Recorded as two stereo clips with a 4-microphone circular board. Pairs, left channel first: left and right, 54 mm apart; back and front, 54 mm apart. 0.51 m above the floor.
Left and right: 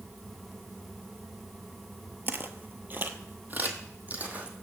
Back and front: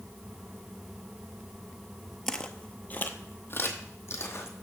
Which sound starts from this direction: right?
Footsteps, at 2.3 s.